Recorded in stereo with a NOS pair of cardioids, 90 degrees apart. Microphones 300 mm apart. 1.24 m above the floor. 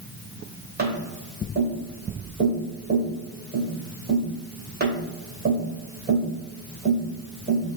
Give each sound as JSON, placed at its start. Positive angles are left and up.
{"t": 0.8, "sound": "tapping", "azimuth_deg": -30, "distance_m": 3.0}